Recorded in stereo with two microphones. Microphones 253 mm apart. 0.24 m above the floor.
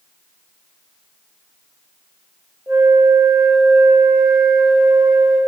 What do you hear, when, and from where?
2.7 s a flute: 10° right (ahead or behind), 6 m